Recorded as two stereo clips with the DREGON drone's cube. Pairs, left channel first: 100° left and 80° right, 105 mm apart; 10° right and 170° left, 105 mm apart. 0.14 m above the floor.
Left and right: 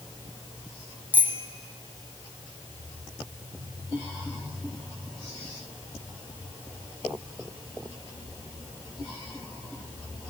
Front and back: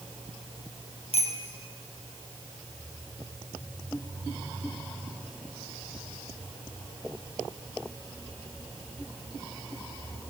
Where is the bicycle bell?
5° right, 3 m.